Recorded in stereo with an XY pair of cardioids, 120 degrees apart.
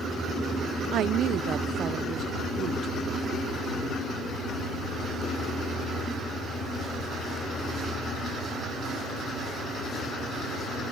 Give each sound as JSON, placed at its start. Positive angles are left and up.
{"t": 0.9, "sound": "a woman speaking", "azimuth_deg": -65}